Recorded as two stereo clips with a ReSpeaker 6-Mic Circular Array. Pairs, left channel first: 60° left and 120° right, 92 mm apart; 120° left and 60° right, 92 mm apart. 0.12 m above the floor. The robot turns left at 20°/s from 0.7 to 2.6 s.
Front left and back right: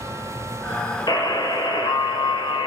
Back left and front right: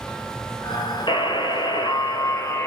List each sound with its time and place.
1.1 s a buzzer: 95° left, 1.3 m; by 2.7 s 65° left, 1.3 m